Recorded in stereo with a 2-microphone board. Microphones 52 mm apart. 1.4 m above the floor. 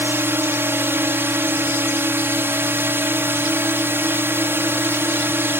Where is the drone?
45° right (ahead or behind).